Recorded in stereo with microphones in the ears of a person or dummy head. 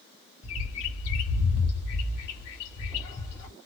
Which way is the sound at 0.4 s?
35° left (ahead or behind).